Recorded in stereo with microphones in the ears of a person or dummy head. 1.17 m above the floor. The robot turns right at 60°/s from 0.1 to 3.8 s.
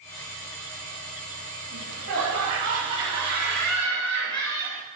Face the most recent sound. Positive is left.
turn(degrees=5)